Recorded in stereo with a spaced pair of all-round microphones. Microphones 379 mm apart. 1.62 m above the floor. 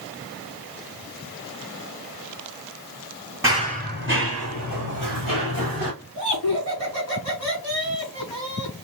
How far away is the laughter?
About 3.5 m.